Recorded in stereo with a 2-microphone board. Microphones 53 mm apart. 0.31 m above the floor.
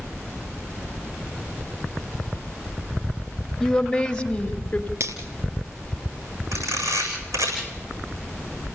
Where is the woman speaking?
5° left (ahead or behind), 1.6 m; by 4.9 s 30° left (ahead or behind), 1.5 m.